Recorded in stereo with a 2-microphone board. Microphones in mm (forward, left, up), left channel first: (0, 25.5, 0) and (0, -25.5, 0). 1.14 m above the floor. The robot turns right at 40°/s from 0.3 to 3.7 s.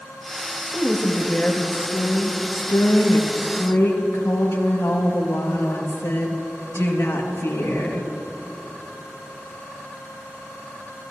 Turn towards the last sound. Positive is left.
turn(degrees=115)